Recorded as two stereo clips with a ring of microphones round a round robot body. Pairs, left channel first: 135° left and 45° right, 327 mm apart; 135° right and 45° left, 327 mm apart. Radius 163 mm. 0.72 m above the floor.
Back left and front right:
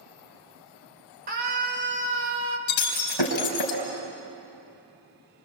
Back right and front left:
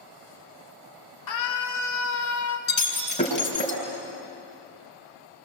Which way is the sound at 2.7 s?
155° left.